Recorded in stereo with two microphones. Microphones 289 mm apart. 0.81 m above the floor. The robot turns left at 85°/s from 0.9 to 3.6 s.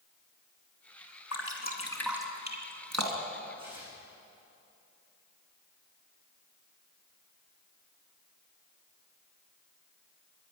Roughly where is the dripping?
Left.